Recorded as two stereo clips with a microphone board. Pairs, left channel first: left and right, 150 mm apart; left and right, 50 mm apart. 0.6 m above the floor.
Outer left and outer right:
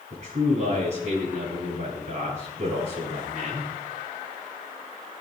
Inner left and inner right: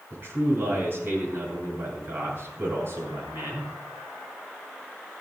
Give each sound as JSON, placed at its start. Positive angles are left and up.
{"t": 0.1, "sound": "a man speaking", "side_deg": -50, "distance_m": 8.5}